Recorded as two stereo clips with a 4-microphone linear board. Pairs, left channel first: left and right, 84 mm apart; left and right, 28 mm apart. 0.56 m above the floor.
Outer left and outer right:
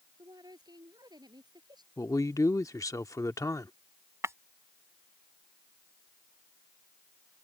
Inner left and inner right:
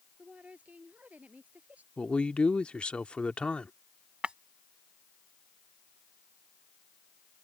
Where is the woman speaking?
50° right (ahead or behind); by 1.9 s 55° right (ahead or behind).